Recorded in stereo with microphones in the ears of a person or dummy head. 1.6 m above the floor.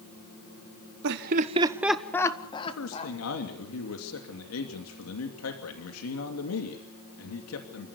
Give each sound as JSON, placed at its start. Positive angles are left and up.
{"t": 1.0, "sound": "laughter", "side_deg": -65, "distance_m": 1.4}
{"t": 2.7, "sound": "a man speaking", "side_deg": 85, "distance_m": 2.5}